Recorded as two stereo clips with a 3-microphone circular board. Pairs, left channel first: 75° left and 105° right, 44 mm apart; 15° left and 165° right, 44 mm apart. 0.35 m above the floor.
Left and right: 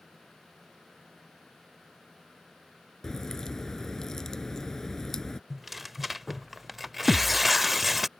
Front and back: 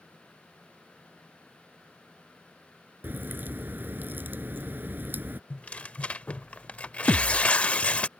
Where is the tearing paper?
20° right.